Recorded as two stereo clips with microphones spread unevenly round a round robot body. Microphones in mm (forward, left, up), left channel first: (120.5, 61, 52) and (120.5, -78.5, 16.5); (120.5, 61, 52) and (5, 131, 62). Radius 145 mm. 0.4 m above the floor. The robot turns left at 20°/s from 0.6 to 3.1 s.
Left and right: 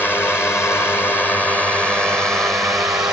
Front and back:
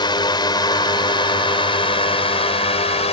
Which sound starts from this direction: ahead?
A drone, at 0.0 s.